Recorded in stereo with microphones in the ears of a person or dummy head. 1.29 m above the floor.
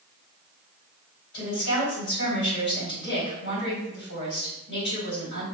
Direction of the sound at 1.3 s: 60° left (ahead or behind).